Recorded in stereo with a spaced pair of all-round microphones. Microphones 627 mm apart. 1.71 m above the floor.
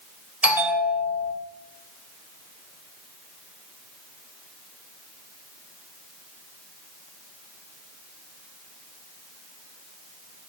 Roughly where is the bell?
Centre.